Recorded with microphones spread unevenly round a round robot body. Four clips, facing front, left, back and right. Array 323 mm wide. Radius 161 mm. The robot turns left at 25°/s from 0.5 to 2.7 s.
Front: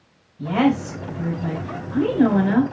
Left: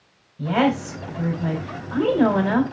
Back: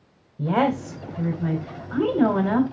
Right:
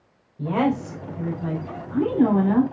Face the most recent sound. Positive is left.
turn(degrees=125)